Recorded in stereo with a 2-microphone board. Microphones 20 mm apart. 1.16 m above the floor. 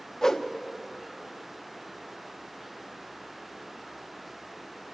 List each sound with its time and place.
0.2 s a whoosh: 20° left (ahead or behind), 0.8 m